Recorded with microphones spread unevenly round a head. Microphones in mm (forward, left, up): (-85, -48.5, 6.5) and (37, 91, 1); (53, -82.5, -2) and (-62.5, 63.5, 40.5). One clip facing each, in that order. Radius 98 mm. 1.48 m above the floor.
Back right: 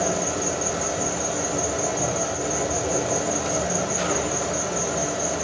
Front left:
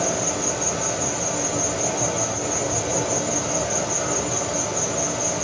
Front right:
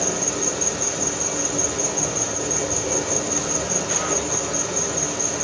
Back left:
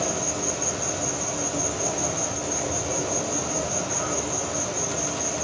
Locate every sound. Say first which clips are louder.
0.0 s an insect: even, front right 2 dB; 55° right, 5 m